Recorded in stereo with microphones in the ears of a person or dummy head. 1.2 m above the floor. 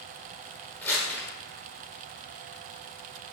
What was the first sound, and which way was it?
Crumpling, 10° left (ahead or behind).